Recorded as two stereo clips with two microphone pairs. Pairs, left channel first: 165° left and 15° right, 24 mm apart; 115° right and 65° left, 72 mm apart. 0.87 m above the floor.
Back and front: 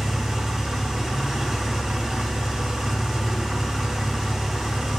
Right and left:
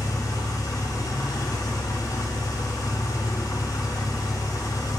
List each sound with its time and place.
0.0 s an engine running: 85° right, 2.5 m